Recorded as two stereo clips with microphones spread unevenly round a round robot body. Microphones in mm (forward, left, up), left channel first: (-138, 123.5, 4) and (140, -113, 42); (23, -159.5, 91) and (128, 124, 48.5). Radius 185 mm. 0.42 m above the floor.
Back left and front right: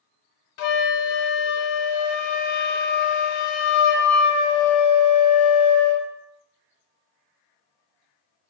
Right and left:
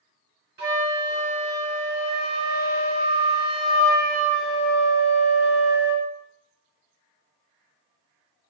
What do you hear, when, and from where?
0.6 s a flute: 135° left, 0.6 m